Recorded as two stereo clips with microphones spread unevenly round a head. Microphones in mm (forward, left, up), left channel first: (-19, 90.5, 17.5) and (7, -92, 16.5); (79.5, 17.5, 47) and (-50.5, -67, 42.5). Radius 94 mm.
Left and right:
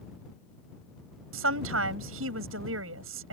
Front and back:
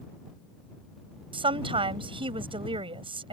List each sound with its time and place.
1.3 s a woman speaking: 90° right